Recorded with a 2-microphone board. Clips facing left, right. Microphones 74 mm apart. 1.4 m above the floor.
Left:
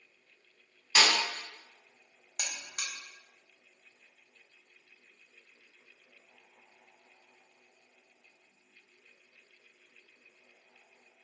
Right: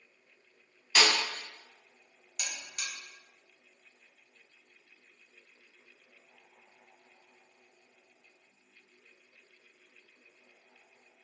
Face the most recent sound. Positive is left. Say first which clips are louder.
# even
turn(degrees=50)  # may be behind; listen again after turning